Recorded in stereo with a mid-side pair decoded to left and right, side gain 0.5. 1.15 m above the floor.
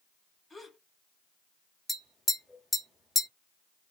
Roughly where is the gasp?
Ahead.